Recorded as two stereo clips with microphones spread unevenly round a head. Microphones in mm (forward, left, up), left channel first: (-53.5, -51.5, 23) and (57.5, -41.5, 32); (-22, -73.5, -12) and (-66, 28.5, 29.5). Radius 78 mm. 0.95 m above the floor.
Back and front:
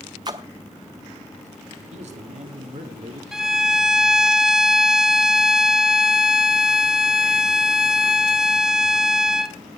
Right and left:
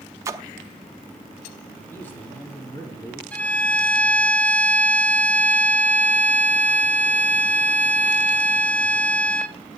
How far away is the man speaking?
About 3 m.